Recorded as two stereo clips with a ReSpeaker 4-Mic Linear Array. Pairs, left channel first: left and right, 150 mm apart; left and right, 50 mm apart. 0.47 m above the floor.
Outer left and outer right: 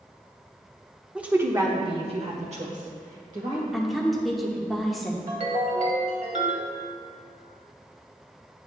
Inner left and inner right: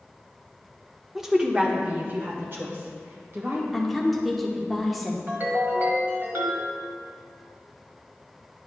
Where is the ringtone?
50° right (ahead or behind), 1.4 m.